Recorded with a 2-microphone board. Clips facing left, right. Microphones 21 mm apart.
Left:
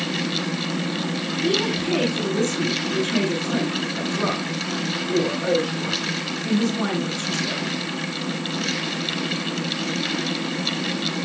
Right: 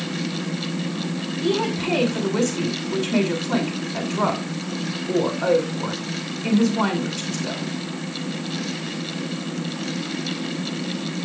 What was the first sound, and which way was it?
A woman speaking, 50° right (ahead or behind).